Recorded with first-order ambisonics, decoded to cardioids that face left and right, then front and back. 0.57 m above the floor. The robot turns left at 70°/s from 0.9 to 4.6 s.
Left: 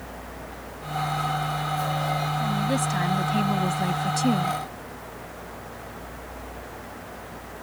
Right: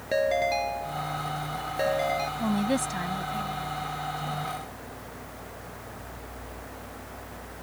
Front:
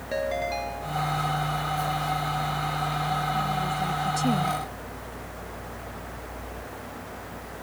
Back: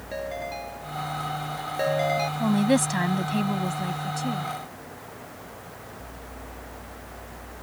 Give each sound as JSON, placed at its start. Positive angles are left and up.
{"t": 0.1, "sound": "a ringtone", "azimuth_deg": -75}
{"t": 2.4, "sound": "a woman speaking", "azimuth_deg": -155}